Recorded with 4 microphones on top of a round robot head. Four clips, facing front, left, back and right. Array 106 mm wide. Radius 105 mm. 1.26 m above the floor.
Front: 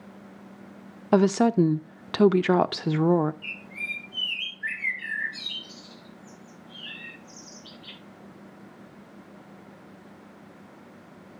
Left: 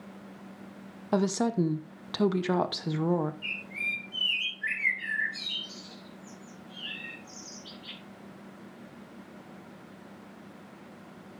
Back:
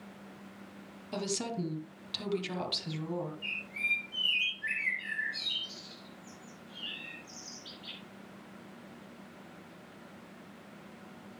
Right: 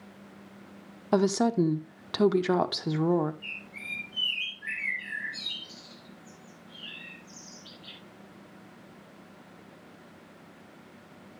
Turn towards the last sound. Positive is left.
turn(degrees=50)